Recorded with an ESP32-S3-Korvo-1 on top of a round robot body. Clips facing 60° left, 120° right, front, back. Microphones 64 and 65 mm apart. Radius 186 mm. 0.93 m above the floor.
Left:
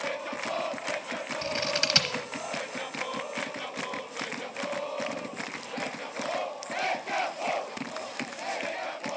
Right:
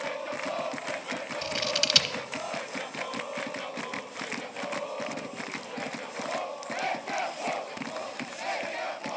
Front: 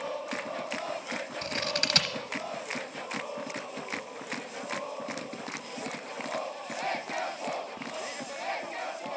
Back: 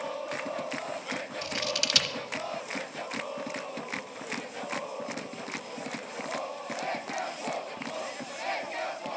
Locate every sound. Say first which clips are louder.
1.4 s scissors: left 1 dB, front 1 dB; 15° left, 1.0 m